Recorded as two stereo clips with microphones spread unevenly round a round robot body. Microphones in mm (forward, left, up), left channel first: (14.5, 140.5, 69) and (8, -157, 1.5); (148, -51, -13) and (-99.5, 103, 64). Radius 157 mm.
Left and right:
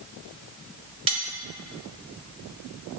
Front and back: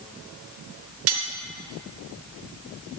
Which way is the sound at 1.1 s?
165° right.